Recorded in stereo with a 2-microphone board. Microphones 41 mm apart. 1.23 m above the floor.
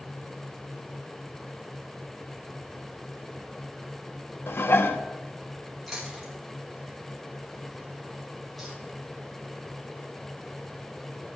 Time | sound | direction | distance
4.5 | dishes clattering | 65° left (ahead or behind) | 1.0 m
5.9 | chewing | centre (ahead or behind) | 4 m